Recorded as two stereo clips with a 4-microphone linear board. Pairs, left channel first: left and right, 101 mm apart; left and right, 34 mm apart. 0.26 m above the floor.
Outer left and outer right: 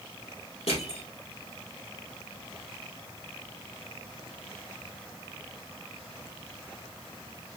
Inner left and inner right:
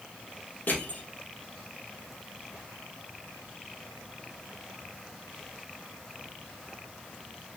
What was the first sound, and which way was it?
Crushing, 85° left.